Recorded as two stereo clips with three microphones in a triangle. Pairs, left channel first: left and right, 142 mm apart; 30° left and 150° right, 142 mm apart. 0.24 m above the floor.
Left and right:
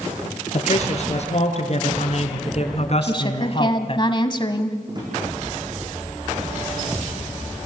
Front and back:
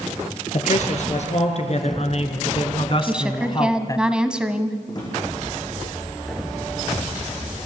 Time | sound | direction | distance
0.5 | a man speaking | 55° left | 4.5 m
3.0 | a woman speaking | 130° left | 1.4 m
4.9 | a drawer | 30° right | 8 m